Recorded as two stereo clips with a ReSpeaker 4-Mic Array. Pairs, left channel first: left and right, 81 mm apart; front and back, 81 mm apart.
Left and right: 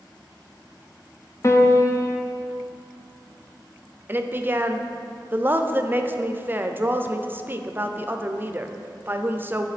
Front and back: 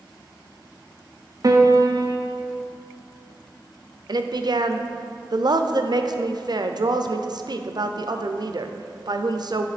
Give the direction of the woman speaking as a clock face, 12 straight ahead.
5 o'clock.